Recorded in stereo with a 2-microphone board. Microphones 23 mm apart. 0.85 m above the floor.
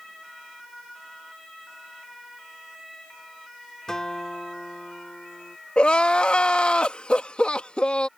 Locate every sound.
3.9 s a guitar: 25° left (ahead or behind)
5.8 s crying: 55° left (ahead or behind)